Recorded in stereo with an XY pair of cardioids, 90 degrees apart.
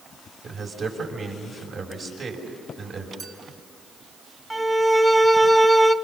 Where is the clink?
65° right, 3 m.